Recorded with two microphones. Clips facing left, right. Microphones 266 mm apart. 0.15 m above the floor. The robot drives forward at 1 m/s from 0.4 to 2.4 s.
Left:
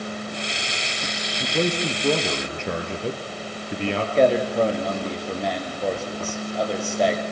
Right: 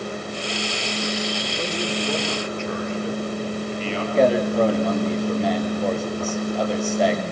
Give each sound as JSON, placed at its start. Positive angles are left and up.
{"t": 1.4, "sound": "a man speaking", "side_deg": 65, "distance_m": 4.0}
{"t": 4.2, "sound": "a man speaking", "side_deg": 0, "distance_m": 4.0}